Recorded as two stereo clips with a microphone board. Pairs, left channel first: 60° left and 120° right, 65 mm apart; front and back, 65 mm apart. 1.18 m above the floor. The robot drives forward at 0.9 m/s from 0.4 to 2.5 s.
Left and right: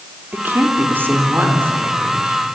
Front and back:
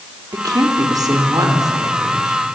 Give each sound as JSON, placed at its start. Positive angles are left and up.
{"t": 0.3, "sound": "a woman speaking", "azimuth_deg": -175, "distance_m": 3.5}